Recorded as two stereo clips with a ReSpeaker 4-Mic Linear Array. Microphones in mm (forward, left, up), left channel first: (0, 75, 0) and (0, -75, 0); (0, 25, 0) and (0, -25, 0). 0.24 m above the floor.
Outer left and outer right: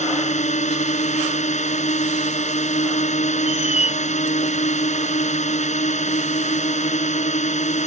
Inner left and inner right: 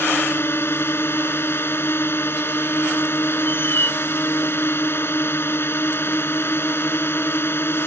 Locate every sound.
0.0 s a drone: 50° left (ahead or behind)
3.5 s a squeak: 45° left (ahead or behind)